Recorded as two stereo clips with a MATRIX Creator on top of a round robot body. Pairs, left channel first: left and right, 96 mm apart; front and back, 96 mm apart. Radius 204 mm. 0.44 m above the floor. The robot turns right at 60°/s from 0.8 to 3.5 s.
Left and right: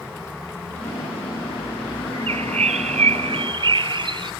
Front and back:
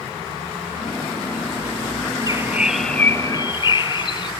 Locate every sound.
2.1 s a bird: 130° right; by 4.3 s 45° right